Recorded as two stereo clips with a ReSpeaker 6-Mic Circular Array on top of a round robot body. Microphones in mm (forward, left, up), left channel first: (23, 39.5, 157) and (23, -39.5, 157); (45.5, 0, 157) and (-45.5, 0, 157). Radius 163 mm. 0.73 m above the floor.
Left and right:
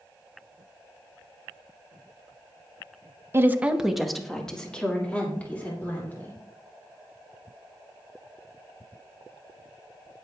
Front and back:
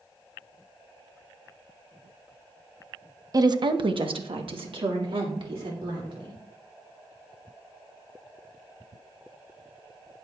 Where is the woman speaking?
140° right, 0.8 m; by 6.4 s 155° left, 3 m.